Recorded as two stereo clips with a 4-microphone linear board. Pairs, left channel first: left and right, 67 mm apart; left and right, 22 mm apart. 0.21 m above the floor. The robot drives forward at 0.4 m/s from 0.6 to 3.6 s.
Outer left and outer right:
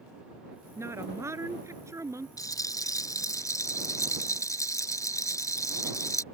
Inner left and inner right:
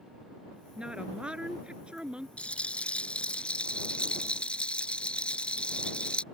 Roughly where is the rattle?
Left.